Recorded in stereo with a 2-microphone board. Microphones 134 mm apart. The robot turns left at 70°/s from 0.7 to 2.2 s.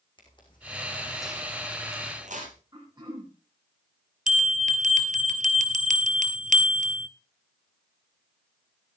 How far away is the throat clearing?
About 7.5 m.